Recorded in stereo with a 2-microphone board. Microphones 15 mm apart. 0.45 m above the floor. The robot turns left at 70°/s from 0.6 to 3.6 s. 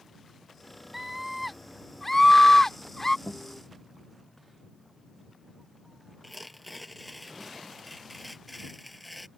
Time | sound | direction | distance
0.9 | a scream | 15° right (ahead or behind) | ?
3.3 | a guitar | 45° left (ahead or behind) | ?
6.2 | tearing paper | centre (ahead or behind) | ?